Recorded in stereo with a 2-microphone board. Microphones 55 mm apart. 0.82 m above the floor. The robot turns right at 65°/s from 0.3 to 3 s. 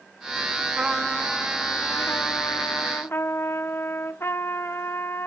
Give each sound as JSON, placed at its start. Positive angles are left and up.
{"t": 0.8, "sound": "a trumpet", "azimuth_deg": -20, "distance_m": 0.8}